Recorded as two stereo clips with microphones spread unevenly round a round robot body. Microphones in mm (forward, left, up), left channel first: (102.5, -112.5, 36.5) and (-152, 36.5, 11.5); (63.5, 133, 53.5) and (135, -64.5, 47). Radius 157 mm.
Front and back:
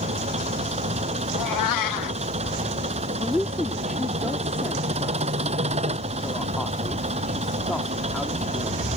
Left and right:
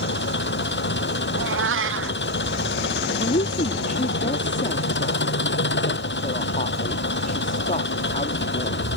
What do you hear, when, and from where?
0.0 s an engine running: 80° left
1.3 s a cat meowing: 50° right
3.2 s a woman speaking: 60° left